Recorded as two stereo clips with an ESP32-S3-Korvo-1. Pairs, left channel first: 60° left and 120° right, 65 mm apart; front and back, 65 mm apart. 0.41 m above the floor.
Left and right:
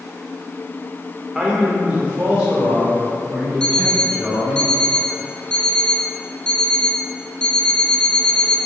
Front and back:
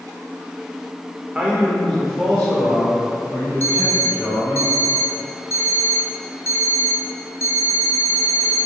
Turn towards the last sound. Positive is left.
turn(degrees=-10)